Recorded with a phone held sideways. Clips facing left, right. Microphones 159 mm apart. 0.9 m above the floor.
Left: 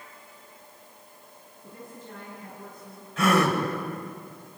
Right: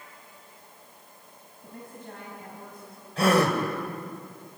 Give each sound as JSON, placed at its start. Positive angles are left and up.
{"t": 1.6, "sound": "a woman speaking", "side_deg": -60, "distance_m": 5.5}
{"t": 3.2, "sound": "a gasp", "side_deg": -35, "distance_m": 3.0}